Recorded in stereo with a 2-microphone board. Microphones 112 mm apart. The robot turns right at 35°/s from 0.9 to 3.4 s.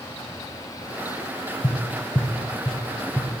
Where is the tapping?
40° left (ahead or behind), 0.9 m; by 3.4 s 5° right (ahead or behind), 0.9 m.